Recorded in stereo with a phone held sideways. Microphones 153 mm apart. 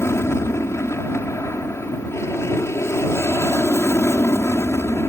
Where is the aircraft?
15° left (ahead or behind).